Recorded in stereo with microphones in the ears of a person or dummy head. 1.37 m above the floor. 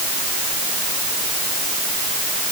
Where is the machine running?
No machine running in this recording.